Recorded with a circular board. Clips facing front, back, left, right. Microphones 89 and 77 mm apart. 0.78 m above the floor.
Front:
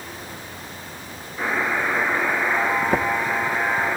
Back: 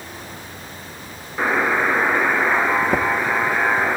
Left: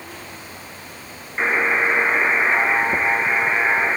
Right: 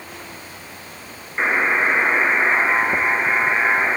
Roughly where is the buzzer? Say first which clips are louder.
Back 4 dB, right 1 dB; behind.